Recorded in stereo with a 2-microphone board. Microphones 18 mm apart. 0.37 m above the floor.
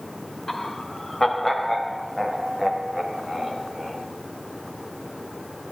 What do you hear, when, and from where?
0.5 s laughter: 20° left (ahead or behind), 1.0 m; by 4.0 s 10° left (ahead or behind), 3 m